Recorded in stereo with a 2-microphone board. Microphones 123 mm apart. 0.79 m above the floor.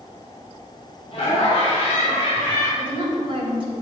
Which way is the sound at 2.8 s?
45° right (ahead or behind).